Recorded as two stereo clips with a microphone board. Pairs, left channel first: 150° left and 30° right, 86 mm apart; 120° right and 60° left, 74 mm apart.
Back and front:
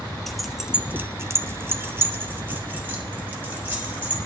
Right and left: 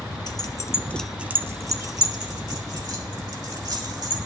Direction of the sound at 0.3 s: 125° right.